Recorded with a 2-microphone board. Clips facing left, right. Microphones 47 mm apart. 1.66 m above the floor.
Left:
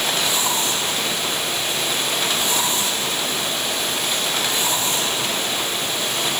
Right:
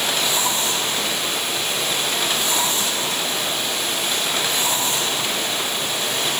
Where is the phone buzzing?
I don't hear a phone buzzing.